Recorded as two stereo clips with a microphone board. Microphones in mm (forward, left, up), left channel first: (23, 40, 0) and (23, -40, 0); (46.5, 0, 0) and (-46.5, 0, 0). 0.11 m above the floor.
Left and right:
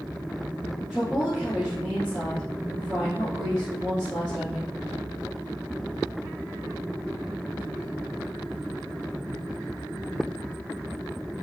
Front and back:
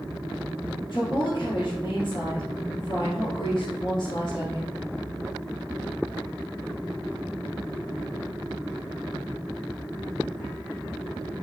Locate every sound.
0.9 s a woman speaking: 5° left, 3 m